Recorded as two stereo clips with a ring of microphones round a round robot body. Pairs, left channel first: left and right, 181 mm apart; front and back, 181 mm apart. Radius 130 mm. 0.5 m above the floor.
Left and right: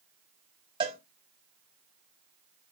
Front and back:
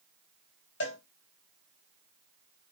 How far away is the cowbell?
About 1.9 m.